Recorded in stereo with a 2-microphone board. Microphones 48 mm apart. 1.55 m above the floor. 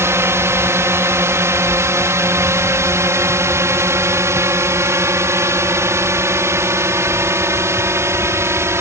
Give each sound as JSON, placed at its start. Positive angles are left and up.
{"t": 0.0, "sound": "a drone", "side_deg": -60}